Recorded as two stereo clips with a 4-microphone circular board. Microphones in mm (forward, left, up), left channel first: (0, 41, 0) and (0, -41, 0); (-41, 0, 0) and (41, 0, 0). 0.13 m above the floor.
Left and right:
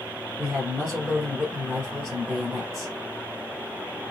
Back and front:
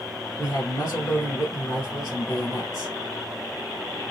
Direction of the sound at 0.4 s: 140° right.